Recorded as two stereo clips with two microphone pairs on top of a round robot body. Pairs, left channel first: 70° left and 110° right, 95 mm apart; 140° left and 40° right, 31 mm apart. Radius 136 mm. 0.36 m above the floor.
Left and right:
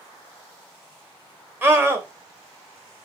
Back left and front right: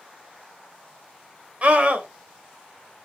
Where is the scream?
55° right, 1.8 m.